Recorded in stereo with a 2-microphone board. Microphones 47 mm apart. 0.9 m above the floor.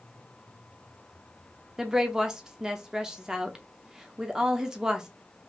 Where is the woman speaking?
15° right (ahead or behind), 0.7 m.